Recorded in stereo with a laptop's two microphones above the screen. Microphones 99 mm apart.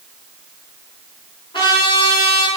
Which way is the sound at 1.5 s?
60° left (ahead or behind).